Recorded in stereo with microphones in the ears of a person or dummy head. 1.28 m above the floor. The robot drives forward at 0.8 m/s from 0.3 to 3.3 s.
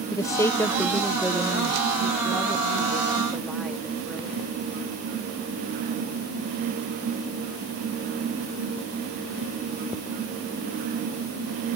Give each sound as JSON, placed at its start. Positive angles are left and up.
{"t": 0.1, "sound": "a woman speaking", "side_deg": 15}